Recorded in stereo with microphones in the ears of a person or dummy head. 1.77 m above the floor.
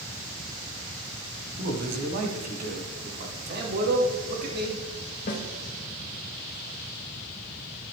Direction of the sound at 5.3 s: 40° left (ahead or behind).